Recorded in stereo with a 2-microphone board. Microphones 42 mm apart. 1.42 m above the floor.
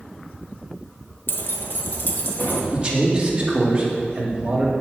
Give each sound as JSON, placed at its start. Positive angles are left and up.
{"t": 1.3, "sound": "keys jangling", "side_deg": 55, "distance_m": 0.9}
{"t": 2.7, "sound": "a man speaking", "side_deg": -25, "distance_m": 2.0}